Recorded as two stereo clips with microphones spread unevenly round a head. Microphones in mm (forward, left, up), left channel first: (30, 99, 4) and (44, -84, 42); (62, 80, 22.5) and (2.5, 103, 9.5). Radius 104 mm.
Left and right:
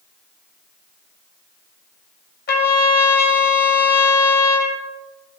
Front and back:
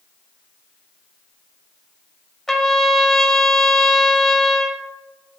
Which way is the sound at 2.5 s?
55° left.